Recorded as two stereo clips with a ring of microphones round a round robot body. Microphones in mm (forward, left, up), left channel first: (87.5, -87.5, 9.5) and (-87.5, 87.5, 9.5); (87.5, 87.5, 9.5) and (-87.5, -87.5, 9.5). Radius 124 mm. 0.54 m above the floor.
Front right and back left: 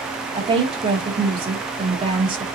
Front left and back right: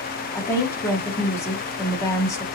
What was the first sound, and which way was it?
A woman speaking, 105° left.